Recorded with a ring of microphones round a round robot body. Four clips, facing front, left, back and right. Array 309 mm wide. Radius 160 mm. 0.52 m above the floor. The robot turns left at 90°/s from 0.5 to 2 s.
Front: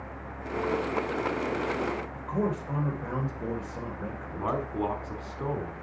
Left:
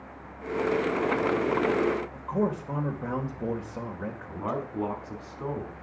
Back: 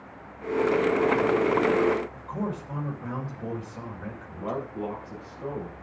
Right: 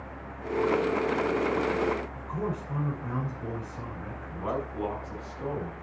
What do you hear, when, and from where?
2.1 s a man speaking: 75° left, 3 m
4.4 s a man speaking: 15° left, 5 m